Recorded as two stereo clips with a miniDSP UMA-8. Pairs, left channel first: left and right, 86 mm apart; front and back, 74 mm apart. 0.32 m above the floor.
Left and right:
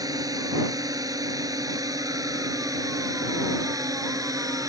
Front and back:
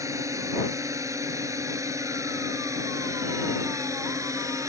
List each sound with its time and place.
0.0 s a drone: 135° right